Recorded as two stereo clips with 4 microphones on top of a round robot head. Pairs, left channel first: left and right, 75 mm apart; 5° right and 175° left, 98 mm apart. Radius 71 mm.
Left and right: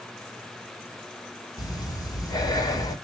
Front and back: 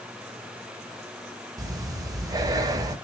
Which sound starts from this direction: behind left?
Breathing, at 1.6 s.